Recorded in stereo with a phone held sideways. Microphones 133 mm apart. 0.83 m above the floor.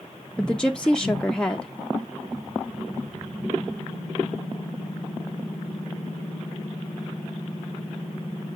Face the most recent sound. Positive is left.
turn(degrees=5)  # may be behind; listen again after turning